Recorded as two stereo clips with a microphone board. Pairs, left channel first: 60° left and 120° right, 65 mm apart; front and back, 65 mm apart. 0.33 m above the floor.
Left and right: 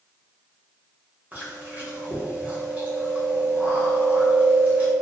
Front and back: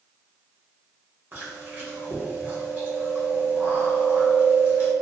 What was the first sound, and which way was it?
Chewing, 160° right.